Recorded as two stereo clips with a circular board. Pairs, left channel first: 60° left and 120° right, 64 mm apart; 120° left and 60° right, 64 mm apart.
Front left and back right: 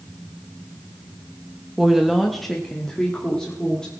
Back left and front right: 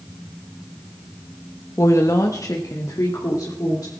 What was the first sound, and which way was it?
A woman speaking, 160° left.